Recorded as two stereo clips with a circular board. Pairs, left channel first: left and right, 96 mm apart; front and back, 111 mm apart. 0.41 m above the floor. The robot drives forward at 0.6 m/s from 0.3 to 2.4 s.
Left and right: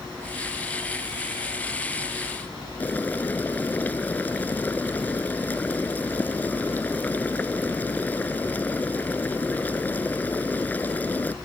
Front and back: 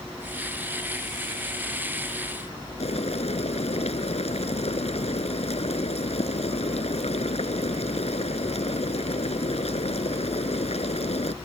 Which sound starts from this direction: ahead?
Boiling, at 2.8 s.